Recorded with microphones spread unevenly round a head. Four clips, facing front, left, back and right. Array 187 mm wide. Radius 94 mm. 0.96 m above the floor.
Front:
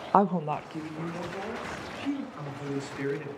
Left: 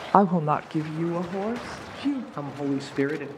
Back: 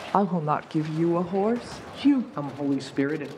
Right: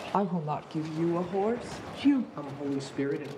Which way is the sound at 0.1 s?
85° left.